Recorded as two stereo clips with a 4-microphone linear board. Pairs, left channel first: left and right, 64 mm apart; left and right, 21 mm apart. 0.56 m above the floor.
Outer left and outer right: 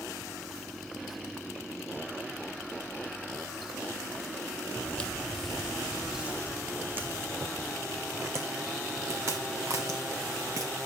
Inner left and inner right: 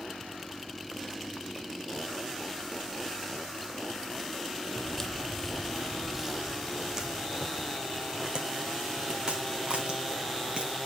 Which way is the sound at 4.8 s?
25° left (ahead or behind).